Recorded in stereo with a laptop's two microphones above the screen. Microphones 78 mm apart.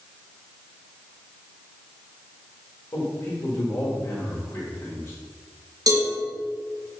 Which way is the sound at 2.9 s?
35° left (ahead or behind).